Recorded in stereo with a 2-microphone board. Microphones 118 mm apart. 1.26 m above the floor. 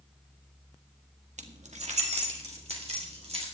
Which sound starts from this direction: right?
Keys jangling, at 1.4 s.